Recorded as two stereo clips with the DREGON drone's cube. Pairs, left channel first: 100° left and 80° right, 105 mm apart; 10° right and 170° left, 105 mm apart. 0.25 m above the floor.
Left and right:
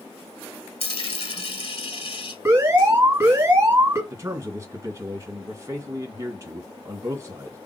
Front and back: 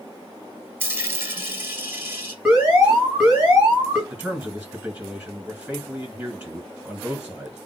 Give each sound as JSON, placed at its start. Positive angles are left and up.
{"t": 0.8, "sound": "a dropped coin", "azimuth_deg": 105, "distance_m": 0.9}
{"t": 2.5, "sound": "an alarm", "azimuth_deg": -110, "distance_m": 2.0}
{"t": 4.1, "sound": "a man speaking", "azimuth_deg": -115, "distance_m": 2.0}